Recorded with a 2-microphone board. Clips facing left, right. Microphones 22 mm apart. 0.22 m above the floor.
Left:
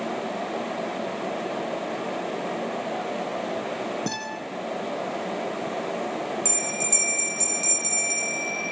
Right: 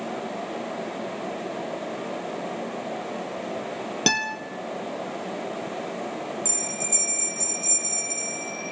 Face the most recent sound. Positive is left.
turn(degrees=35)  # may be behind; listen again after turning